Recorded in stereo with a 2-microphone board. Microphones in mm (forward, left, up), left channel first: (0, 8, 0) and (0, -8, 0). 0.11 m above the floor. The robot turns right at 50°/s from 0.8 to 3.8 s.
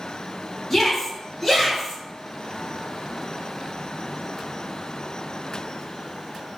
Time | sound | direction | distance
0.7 | a shout | 10° left (ahead or behind) | 1.3 m